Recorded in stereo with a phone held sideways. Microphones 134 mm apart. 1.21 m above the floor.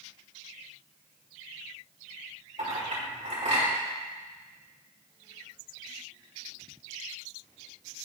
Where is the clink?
55° right (ahead or behind), 3 m.